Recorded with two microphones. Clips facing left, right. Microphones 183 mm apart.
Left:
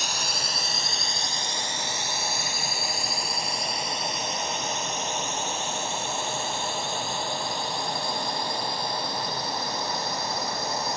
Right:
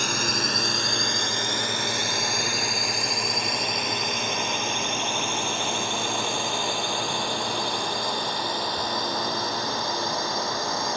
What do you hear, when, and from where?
0.0 s a drone: 60° right (ahead or behind); by 11.0 s 70° right (ahead or behind)